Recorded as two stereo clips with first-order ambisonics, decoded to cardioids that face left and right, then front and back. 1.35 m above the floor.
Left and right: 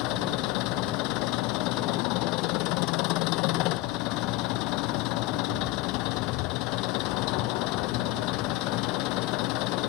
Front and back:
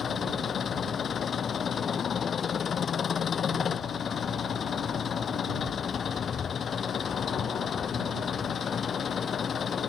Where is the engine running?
65° left.